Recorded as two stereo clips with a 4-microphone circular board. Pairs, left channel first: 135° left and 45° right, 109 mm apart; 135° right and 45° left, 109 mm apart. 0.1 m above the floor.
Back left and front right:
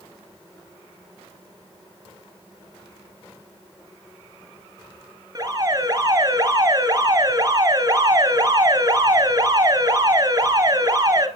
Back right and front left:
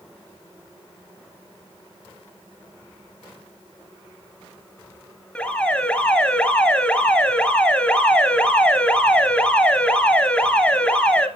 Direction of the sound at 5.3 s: 60° right.